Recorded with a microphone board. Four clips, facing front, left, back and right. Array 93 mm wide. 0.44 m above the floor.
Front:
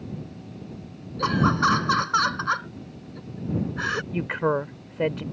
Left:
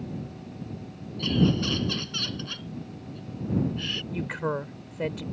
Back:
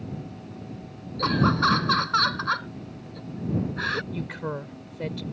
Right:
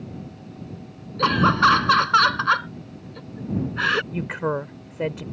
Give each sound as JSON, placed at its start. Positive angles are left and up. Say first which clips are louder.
{"t": 1.2, "sound": "laughter", "louder": "right 8 dB, front 1 dB", "azimuth_deg": -75}
{"t": 4.1, "sound": "a woman speaking", "louder": "right 4 dB, front 8 dB", "azimuth_deg": -30}